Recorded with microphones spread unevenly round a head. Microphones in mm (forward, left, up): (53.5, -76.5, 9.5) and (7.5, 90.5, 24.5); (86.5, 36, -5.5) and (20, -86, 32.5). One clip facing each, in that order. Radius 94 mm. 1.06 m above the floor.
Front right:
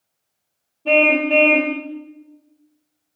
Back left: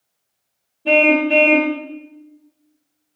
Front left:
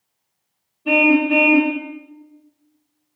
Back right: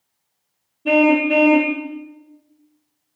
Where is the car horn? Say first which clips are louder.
Back left 2 dB, back right 1 dB; 175° right, 2 m.